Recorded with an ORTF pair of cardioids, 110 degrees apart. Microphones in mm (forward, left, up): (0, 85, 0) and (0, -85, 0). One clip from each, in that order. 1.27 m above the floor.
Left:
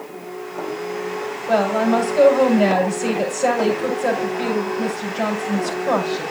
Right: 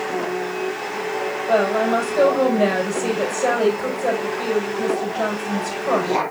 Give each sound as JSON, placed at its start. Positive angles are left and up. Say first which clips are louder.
{"t": 1.5, "sound": "a woman speaking", "louder": "even", "azimuth_deg": 15, "distance_m": 5.5}